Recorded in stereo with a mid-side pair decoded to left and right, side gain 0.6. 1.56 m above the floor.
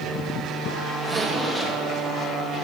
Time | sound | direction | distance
1.0 | a zipper | 15° right | 3 m